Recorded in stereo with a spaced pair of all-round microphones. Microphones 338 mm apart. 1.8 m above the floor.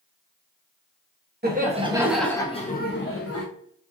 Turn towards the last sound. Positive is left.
turn(degrees=45)  # may be behind; listen again after turning